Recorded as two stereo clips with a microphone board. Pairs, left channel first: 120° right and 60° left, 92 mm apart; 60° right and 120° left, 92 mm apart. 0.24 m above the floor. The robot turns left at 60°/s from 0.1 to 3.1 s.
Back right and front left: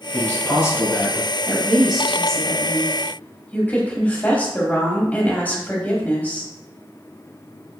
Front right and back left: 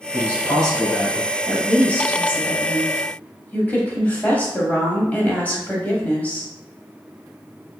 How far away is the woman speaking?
About 1.0 m.